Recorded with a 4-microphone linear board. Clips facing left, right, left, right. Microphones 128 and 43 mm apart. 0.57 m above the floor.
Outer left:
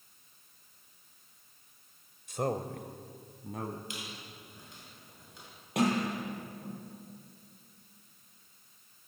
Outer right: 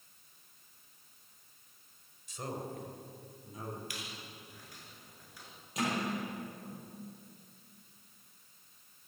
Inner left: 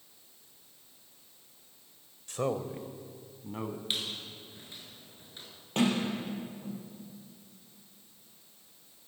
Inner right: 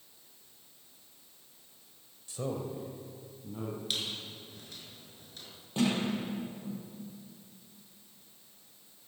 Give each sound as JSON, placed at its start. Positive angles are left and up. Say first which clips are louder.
{"t": 2.3, "sound": "a man speaking", "louder": "outer left 8 dB, inner left 4 dB", "side_deg": 55, "distance_m": 1.8}
{"t": 3.9, "sound": "a squeak", "louder": "outer left 2 dB, inner left 1 dB", "side_deg": 25, "distance_m": 5.5}
{"t": 5.8, "sound": "a sliding door", "louder": "outer left 5 dB, inner left 1 dB", "side_deg": 60, "distance_m": 9.0}